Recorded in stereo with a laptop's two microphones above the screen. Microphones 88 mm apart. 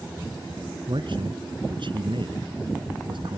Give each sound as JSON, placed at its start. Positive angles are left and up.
{"t": 0.9, "sound": "a man speaking", "side_deg": -60}